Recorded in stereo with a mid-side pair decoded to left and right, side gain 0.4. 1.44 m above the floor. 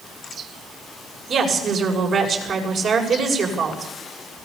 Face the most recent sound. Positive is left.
turn(degrees=-60)